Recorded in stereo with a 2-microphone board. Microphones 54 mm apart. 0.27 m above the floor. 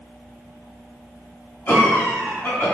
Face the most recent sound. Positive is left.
turn(degrees=40)  # may be behind; listen again after turning